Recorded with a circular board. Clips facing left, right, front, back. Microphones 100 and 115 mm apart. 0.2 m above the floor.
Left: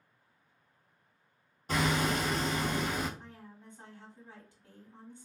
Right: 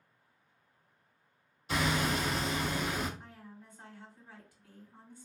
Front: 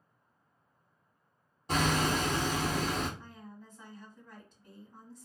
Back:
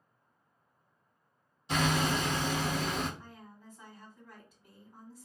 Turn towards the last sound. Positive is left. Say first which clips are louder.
# even, front 2 dB
turn(degrees=110)